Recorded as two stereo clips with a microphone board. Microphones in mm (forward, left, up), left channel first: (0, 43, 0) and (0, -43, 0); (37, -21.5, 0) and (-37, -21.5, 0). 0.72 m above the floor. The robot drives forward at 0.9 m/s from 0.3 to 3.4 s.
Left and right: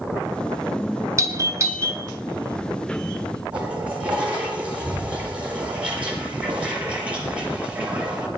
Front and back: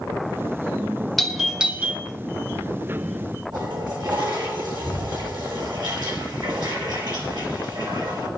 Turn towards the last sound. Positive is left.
turn(degrees=-165)